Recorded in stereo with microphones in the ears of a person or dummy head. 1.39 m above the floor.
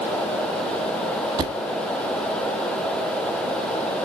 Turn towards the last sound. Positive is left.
turn(degrees=-25)  # may be behind; listen again after turning